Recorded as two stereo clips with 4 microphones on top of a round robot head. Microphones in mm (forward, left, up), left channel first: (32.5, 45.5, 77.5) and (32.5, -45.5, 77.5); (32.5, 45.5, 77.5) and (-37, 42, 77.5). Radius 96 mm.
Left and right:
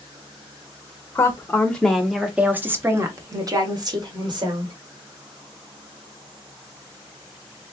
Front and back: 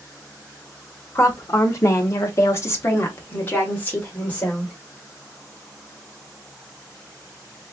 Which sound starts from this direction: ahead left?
A woman speaking, at 1.1 s.